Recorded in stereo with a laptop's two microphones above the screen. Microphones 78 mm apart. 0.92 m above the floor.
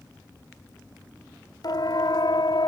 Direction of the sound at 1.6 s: 60° left (ahead or behind).